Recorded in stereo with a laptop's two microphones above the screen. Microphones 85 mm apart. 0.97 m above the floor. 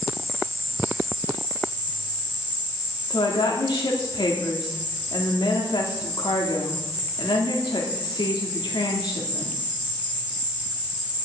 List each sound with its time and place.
0.0 s an insect: 70° left (ahead or behind), 3 m
3.1 s a woman speaking: 65° left (ahead or behind), 2.5 m